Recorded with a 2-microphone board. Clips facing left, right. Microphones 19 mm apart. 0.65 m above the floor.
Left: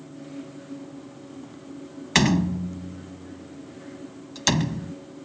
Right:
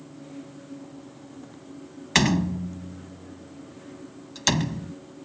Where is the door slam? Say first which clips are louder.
Left 1 dB; 5° left (ahead or behind).